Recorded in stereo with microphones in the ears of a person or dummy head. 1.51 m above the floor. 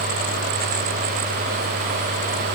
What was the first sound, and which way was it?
Only background noise.